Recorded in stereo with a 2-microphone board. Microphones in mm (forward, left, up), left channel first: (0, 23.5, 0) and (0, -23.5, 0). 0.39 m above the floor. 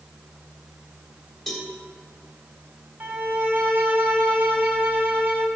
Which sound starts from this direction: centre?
A cowbell, at 1.5 s.